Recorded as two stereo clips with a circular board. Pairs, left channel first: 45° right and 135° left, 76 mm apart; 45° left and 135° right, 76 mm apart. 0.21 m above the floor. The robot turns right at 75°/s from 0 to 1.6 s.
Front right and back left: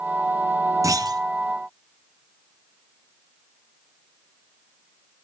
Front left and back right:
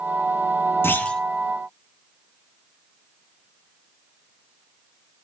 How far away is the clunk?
About 1.3 m.